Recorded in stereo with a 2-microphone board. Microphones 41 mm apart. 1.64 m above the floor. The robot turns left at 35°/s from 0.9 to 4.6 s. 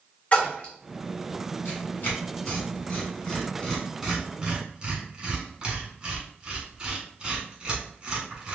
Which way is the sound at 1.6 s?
55° left (ahead or behind).